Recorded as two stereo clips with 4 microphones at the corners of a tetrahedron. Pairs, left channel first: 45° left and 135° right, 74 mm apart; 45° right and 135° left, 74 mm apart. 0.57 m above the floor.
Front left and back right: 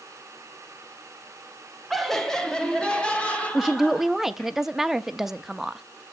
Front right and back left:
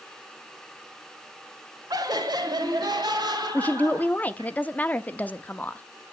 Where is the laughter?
135° left, 1.6 m; by 4.5 s 115° left, 4 m.